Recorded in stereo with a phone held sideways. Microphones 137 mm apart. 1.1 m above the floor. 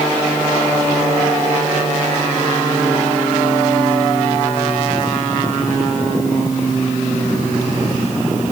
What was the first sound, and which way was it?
Only background noise.